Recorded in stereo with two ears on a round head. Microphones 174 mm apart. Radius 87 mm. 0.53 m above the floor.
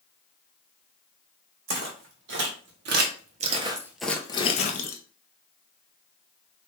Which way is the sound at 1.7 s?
70° right (ahead or behind).